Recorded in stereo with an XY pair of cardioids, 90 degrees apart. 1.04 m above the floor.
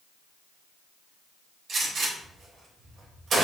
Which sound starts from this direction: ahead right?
A gunshot, at 1.7 s.